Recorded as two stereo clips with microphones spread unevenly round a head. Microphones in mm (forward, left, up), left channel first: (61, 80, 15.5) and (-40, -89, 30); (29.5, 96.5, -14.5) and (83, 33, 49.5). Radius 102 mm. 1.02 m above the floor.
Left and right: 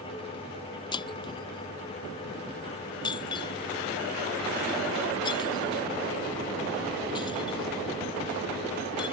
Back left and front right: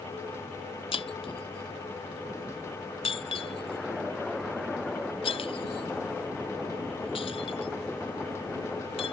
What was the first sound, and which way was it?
Breaking glass, 130° left.